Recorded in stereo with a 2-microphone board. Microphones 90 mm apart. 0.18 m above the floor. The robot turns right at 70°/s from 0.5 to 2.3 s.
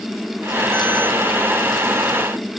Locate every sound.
Only background noise.